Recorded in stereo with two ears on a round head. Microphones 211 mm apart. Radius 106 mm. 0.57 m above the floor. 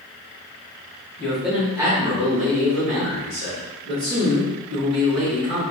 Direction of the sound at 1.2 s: 5° left (ahead or behind).